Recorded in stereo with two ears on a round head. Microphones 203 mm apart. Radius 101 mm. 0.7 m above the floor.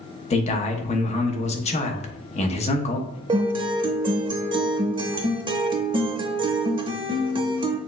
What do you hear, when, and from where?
0.3 s a man speaking: 30° left (ahead or behind), 0.8 m
3.3 s a guitar: 20° right (ahead or behind), 0.7 m